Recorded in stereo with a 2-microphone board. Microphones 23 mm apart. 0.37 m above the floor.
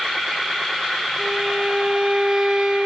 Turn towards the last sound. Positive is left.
turn(degrees=-45)  # may be behind; listen again after turning